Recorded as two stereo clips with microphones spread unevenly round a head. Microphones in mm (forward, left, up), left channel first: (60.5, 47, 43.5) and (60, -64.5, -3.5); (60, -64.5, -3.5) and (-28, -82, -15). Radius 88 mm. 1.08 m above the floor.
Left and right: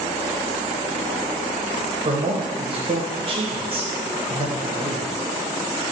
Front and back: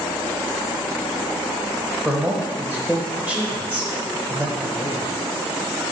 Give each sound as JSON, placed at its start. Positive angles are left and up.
{"t": 2.0, "sound": "a man speaking", "azimuth_deg": -95, "distance_m": 0.7}